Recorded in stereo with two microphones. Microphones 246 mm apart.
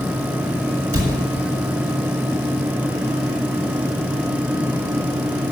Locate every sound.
0.9 s a cupboard door: 70° right (ahead or behind), 6.5 m